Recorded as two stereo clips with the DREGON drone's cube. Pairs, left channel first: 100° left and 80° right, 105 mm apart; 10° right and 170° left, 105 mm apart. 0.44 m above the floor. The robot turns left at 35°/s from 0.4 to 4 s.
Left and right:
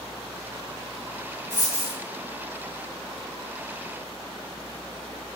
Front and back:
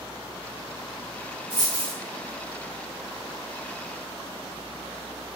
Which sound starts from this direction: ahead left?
A dropped coin, at 1.5 s.